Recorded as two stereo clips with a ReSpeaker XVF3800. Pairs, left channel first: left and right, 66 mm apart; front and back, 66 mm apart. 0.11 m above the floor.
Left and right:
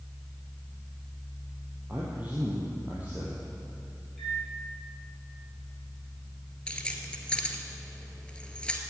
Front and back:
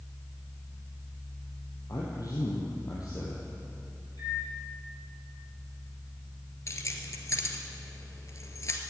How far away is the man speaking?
About 3.5 m.